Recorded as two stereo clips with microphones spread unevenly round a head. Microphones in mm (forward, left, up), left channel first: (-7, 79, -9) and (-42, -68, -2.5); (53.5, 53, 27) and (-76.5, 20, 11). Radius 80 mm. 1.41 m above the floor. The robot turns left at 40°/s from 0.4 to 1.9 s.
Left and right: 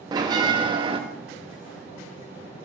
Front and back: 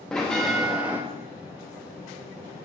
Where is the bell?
60° right, 0.8 m; by 1.0 s 85° right, 0.8 m.